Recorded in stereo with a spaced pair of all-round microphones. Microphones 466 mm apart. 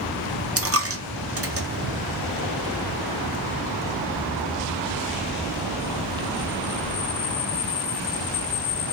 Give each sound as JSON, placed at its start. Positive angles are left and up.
{"t": 0.6, "sound": "a dropped coin", "side_deg": -30, "distance_m": 0.6}